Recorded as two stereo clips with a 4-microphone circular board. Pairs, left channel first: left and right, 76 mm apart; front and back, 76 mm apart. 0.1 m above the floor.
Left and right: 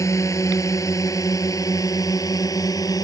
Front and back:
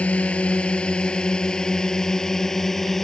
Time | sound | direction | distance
0.0 | a drone | 65° left | ?